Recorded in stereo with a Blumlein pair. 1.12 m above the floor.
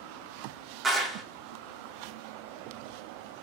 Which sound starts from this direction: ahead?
A clap, at 0.8 s.